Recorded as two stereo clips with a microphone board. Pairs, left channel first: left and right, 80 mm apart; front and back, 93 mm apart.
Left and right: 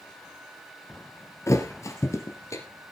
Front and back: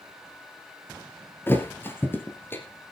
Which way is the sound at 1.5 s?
55° left.